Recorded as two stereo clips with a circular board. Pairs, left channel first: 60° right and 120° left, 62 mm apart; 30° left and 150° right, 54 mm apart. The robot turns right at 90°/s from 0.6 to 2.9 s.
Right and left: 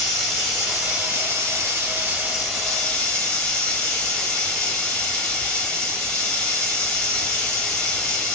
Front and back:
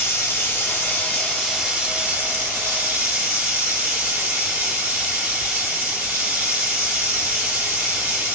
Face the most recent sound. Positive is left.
turn(degrees=-120)